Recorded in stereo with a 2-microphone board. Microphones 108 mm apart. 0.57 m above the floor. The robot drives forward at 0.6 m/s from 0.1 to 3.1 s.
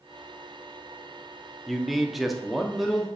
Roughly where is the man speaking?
Centre.